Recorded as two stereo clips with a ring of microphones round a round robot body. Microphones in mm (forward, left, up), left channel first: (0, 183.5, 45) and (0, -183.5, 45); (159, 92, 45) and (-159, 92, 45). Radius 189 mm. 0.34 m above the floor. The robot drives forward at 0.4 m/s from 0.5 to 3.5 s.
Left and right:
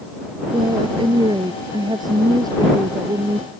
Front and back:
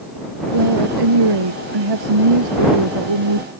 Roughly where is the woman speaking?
Behind.